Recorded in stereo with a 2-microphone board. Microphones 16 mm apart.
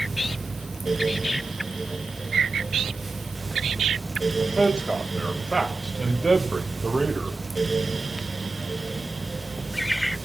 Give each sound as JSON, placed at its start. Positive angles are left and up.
{"t": 4.4, "sound": "a man speaking", "side_deg": 55, "distance_m": 2.5}